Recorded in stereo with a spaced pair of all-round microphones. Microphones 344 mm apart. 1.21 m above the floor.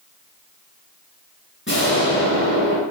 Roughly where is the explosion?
Left.